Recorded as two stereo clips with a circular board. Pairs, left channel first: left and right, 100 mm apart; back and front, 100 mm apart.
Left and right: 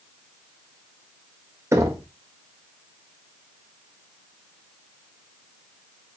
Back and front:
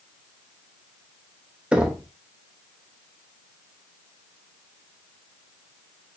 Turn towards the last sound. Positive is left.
turn(degrees=-70)